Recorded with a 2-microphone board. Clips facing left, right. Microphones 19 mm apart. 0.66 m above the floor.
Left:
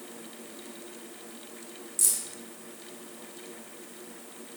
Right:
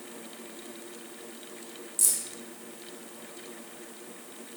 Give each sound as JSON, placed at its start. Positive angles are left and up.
{"t": 2.0, "sound": "keys jangling", "side_deg": 0, "distance_m": 1.5}